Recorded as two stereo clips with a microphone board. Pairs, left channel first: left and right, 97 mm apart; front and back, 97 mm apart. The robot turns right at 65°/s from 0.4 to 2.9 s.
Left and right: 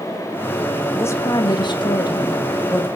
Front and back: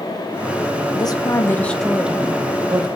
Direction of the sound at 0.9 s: 25° left.